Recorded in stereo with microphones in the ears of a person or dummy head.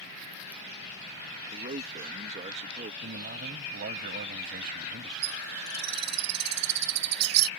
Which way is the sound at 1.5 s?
40° right (ahead or behind).